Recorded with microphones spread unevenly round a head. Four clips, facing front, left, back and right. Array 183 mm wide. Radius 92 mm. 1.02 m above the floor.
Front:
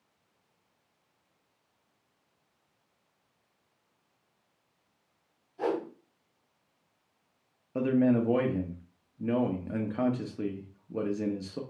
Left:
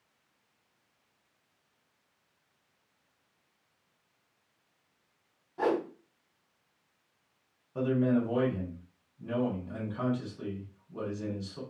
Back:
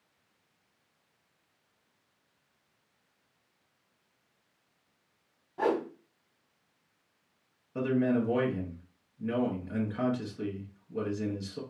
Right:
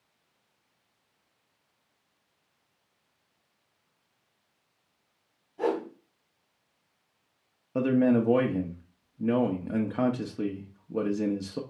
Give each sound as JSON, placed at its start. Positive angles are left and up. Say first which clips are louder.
{"t": 5.6, "sound": "a whoosh", "louder": "even, back 2 dB", "azimuth_deg": 145, "distance_m": 1.6}
{"t": 7.8, "sound": "a man speaking", "louder": "right 4 dB, front 3 dB", "azimuth_deg": -70, "distance_m": 0.8}